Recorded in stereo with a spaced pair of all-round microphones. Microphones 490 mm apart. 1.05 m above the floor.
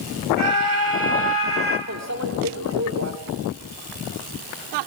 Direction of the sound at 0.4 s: 80° left.